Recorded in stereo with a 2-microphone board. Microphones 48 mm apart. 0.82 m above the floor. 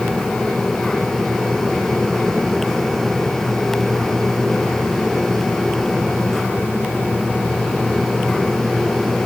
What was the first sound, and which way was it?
Only background noise.